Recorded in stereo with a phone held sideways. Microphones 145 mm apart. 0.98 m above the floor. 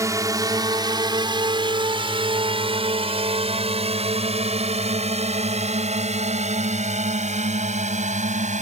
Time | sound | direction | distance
0.0 | a drone | 20° right (ahead or behind) | ?